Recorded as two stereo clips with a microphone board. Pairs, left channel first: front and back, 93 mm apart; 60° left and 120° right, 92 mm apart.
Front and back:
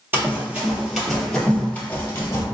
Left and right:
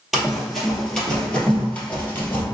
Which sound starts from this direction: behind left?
Running footsteps, at 0.1 s.